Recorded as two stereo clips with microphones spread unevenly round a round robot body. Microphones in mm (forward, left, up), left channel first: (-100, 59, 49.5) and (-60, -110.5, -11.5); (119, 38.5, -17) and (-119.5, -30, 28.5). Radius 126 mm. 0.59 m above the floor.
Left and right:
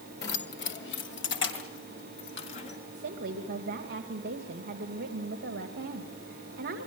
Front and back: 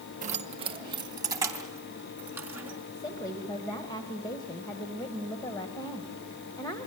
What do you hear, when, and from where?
0.2 s keys jangling: 135° left, 1.6 m; by 2.8 s 110° left, 5 m
2.9 s a woman speaking: 60° right, 2.5 m